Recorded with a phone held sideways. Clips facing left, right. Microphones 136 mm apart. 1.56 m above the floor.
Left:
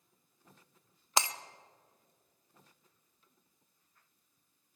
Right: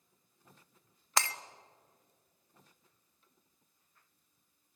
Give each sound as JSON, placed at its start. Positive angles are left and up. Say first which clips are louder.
{"t": 1.2, "sound": "breaking glass", "louder": "left 1 dB", "side_deg": 20, "distance_m": 0.8}